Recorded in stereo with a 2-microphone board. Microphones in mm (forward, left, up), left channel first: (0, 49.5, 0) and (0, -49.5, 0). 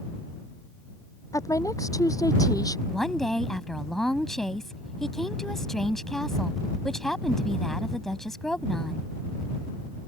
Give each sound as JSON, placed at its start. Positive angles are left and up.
{"t": 1.3, "sound": "a woman speaking", "side_deg": 35}
{"t": 2.9, "sound": "a woman speaking", "side_deg": 5}